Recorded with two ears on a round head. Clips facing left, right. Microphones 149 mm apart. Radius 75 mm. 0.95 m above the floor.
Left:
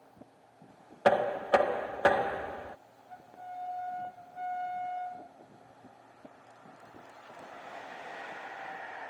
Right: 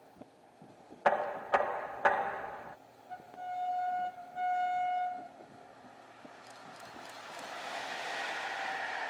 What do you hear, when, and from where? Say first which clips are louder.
1.1 s knocking: left 5 dB; 40° left (ahead or behind)